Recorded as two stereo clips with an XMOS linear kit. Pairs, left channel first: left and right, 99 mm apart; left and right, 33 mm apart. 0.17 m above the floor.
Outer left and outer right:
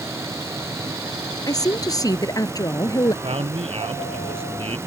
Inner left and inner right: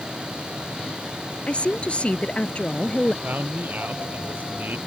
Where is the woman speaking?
40° left (ahead or behind).